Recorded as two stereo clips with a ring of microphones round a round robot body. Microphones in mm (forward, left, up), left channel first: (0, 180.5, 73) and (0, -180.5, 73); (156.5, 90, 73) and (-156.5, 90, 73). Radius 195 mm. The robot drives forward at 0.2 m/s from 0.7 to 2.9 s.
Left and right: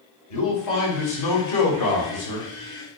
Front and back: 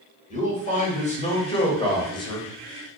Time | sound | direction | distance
0.3 | a man speaking | 65° left | 1.8 m